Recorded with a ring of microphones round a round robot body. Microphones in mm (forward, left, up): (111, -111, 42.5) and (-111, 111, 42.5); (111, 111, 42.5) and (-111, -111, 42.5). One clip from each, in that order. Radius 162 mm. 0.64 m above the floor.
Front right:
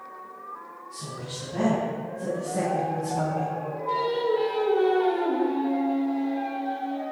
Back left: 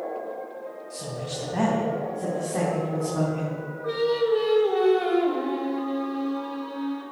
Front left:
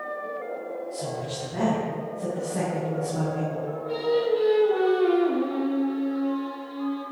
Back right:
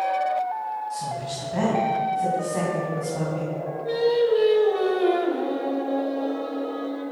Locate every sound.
0.9 s a woman speaking: 175° right, 4 m; by 3.6 s 145° left, 5 m
3.9 s singing: straight behind, 2.5 m